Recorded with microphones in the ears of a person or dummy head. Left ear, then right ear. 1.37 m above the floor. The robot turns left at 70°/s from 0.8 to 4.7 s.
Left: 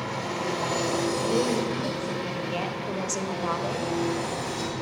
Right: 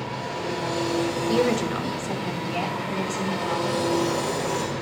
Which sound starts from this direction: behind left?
An engine running, at 0.0 s.